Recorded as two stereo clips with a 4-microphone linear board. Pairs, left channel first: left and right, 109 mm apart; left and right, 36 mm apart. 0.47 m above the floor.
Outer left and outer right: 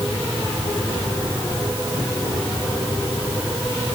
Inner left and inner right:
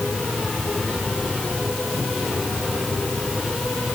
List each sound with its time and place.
Only background noise.